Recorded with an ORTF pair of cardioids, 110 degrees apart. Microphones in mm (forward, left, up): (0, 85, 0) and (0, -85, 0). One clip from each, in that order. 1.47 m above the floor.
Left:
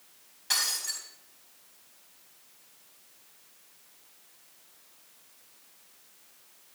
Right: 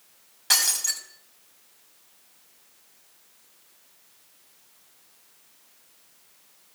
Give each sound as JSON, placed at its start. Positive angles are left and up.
{"t": 0.5, "sound": "breaking glass", "azimuth_deg": -45, "distance_m": 3.5}